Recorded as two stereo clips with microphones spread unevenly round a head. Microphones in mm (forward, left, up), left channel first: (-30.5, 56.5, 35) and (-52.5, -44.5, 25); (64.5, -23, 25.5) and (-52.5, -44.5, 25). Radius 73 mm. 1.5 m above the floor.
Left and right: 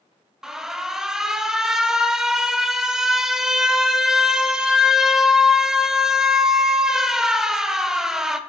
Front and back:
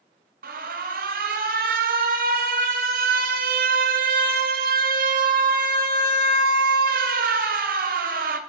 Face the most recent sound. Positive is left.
turn(degrees=170)